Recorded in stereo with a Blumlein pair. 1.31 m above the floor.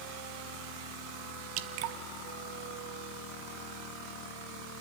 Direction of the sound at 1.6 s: 45° right.